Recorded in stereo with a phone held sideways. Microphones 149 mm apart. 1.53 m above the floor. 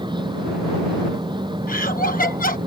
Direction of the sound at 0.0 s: 30° right (ahead or behind).